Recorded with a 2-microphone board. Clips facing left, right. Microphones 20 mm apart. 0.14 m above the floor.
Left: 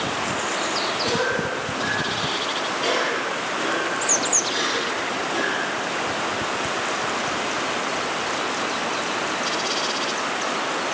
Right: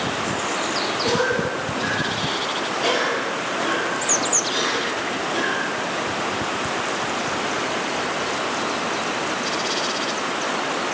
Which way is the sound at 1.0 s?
Centre (ahead or behind).